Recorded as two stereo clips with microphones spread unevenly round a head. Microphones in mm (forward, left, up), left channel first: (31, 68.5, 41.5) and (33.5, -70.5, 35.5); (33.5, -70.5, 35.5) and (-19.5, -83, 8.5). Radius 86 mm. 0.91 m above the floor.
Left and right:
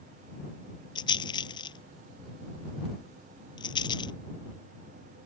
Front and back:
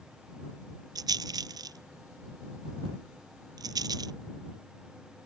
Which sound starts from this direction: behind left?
A rattle, at 0.9 s.